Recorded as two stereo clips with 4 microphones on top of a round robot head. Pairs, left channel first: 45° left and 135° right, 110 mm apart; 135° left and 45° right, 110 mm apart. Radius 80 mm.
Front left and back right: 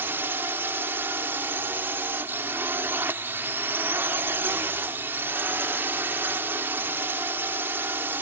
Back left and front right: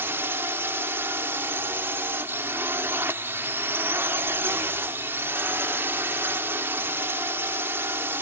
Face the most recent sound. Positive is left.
turn(degrees=-90)